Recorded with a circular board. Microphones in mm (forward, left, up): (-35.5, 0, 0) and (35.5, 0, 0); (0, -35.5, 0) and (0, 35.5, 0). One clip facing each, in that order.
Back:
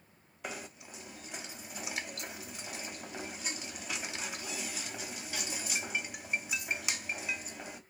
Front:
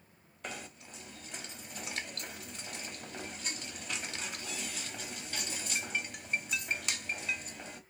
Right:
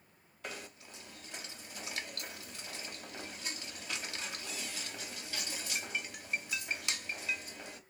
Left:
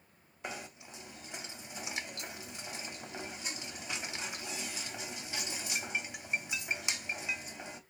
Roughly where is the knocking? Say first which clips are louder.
Back 1 dB, left 2 dB; behind left.